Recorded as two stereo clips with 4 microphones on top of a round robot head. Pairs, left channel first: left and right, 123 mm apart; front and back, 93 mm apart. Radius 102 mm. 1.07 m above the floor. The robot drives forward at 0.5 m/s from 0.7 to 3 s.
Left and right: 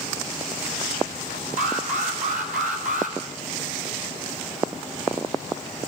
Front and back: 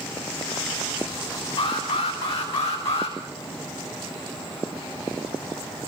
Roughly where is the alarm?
Ahead right.